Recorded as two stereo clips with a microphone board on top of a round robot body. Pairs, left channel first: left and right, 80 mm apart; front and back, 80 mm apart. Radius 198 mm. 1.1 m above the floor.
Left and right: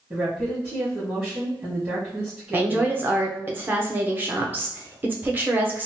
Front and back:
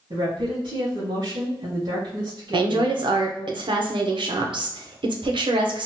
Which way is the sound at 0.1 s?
160° right.